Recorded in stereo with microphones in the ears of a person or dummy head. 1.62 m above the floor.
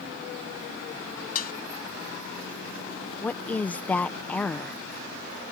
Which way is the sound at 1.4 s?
45° left (ahead or behind).